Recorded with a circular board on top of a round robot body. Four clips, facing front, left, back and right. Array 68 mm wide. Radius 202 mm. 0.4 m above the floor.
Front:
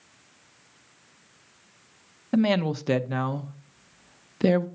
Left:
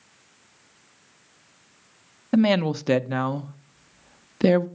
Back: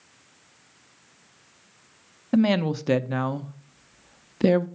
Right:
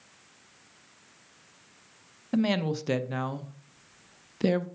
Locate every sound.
2.3 s a woman speaking: 90° left, 0.8 m